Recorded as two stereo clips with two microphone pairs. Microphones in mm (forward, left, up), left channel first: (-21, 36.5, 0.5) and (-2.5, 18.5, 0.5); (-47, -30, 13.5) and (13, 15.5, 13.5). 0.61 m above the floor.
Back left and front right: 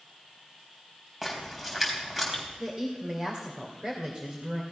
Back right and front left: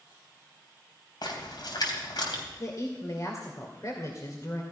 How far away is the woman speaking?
About 2 m.